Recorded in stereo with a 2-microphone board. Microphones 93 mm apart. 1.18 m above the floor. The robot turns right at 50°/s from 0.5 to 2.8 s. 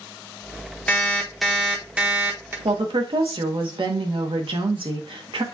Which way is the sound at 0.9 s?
150° left.